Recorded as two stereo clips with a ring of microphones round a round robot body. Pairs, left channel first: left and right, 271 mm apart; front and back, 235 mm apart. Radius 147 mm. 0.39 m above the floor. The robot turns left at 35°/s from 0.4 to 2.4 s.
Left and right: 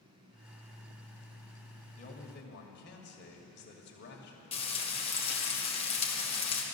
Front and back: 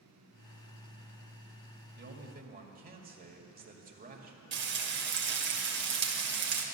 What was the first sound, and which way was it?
A man speaking, 150° left.